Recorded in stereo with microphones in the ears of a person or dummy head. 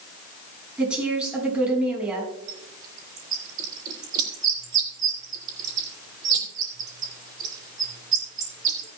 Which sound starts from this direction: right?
A bird, at 2.5 s.